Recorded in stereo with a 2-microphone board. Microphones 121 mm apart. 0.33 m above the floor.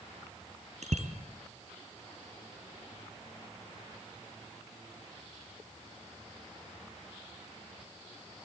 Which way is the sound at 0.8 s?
70° right (ahead or behind).